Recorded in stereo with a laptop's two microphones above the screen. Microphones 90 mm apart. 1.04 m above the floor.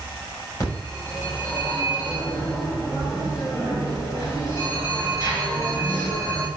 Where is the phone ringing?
35° left (ahead or behind), 4.5 m.